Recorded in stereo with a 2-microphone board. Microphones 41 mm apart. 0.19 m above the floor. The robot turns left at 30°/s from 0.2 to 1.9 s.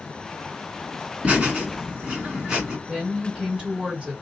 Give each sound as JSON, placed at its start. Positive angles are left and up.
{"t": 1.2, "sound": "laughter", "side_deg": -35, "distance_m": 2.0}
{"t": 2.9, "sound": "a woman speaking", "side_deg": -20, "distance_m": 1.6}